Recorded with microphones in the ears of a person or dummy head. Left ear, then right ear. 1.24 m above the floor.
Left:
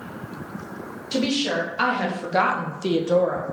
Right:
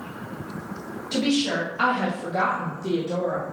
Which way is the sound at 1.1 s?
15° left (ahead or behind).